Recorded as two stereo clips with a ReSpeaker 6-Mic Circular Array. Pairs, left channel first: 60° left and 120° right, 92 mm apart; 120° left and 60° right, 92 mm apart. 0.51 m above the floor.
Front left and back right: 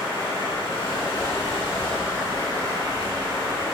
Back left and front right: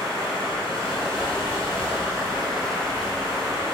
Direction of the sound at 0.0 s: 35° left.